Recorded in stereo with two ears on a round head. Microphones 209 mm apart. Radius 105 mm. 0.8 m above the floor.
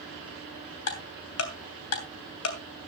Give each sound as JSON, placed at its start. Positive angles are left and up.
{"t": 0.9, "sound": "ticking", "side_deg": 70, "distance_m": 3.0}